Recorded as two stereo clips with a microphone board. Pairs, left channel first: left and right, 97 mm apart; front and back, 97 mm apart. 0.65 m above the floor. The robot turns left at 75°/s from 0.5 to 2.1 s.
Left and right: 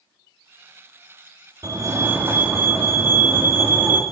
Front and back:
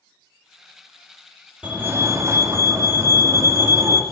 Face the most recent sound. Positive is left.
turn(degrees=-140)